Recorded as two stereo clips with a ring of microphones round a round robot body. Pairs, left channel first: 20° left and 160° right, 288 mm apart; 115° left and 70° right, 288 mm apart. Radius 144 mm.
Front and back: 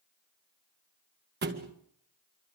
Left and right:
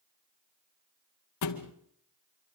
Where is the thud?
145° left, 1.9 m.